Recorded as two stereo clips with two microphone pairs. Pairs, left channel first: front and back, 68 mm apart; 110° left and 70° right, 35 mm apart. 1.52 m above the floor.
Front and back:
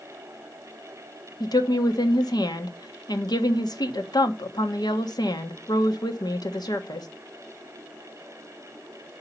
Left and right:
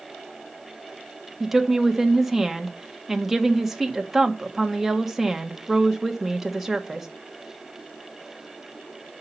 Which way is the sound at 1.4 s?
10° left.